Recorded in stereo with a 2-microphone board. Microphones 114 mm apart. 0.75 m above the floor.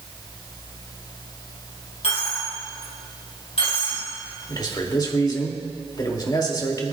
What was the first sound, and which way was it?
A dropped coin, 70° left (ahead or behind).